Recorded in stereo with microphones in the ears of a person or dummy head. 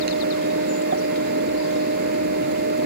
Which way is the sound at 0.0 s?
60° right (ahead or behind).